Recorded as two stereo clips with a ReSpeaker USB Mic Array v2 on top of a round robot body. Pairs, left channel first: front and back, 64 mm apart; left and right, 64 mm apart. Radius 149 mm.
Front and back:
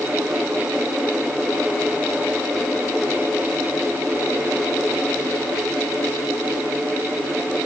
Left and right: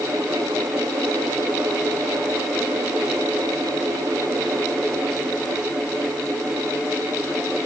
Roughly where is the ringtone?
No ringtone in this recording.